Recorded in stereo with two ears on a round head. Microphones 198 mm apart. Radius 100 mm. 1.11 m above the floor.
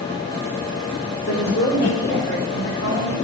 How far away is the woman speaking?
About 4.5 m.